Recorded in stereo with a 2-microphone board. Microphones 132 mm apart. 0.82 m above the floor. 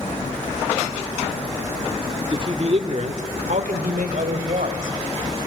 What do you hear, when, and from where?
2.3 s a man speaking: 35° right (ahead or behind), 1.6 m; by 5.0 s 80° right, 3.5 m